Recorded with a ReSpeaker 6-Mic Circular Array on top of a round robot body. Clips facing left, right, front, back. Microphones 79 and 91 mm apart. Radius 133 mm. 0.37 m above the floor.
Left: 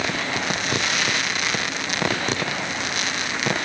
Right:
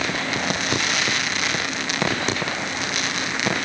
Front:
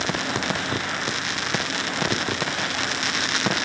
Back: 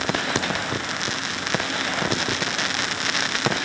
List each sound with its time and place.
Only background noise.